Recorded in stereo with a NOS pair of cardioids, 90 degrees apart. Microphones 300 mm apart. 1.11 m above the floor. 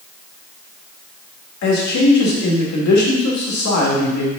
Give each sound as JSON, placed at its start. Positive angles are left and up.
{"t": 1.6, "sound": "a man speaking", "azimuth_deg": 70, "distance_m": 2.0}